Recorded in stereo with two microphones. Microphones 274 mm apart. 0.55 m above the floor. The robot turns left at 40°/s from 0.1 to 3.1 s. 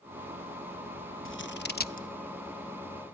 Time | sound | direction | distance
1.2 | scissors | 45° left (ahead or behind) | 0.7 m